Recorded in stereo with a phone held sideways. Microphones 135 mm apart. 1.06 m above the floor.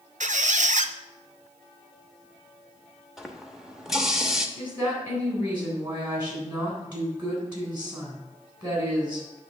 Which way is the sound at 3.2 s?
5° right (ahead or behind).